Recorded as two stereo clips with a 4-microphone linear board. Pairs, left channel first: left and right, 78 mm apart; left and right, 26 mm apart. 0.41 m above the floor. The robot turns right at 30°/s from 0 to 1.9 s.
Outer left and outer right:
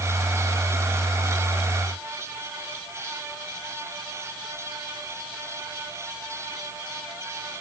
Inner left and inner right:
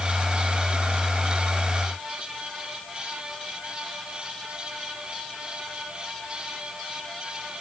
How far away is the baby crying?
I don't hear a baby crying.